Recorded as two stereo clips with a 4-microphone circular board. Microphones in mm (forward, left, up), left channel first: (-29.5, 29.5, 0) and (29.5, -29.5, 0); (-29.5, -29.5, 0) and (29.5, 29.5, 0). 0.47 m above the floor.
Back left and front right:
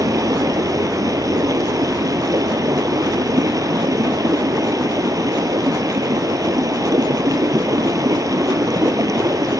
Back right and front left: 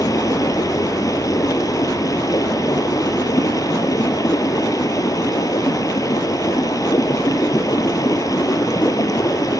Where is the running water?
90° right, 1.7 m.